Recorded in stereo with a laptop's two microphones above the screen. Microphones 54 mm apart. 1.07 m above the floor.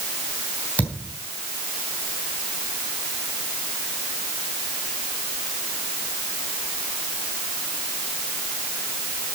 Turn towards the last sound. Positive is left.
turn(degrees=30)  # may be behind; listen again after turning